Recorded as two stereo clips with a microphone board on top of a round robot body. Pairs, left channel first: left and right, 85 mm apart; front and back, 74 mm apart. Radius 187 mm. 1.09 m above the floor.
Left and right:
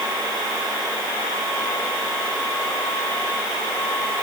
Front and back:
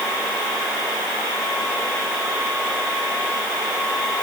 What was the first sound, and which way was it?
Only background noise.